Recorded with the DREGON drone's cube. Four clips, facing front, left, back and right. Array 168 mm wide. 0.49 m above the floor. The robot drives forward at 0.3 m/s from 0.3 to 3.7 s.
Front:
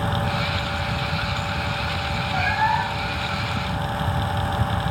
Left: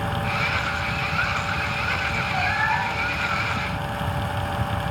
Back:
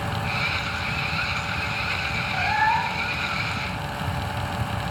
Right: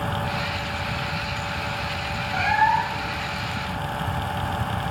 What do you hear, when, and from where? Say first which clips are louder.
2.3 s a cat meowing: right 6 dB, even; 100° right, 8 m; by 3.2 s 105° right, 8 m